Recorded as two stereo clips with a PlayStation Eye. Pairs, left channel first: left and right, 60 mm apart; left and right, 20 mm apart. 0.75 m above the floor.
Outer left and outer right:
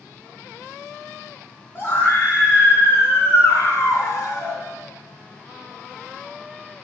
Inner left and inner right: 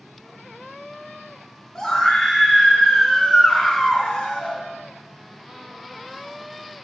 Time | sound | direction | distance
1.8 | a scream | 35° left (ahead or behind) | 2.5 m